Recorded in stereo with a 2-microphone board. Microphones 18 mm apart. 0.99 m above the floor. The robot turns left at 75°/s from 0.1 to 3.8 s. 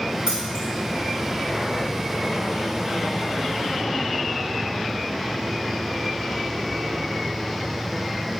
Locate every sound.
0.3 s keys jangling: 25° right (ahead or behind), 3 m; by 0.7 s 60° right (ahead or behind), 3 m